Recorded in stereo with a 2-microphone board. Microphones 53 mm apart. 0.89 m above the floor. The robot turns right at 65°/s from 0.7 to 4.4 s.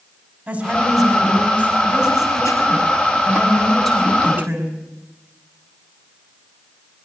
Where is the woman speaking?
25° right, 5.5 m; by 4.8 s 145° right, 5.5 m.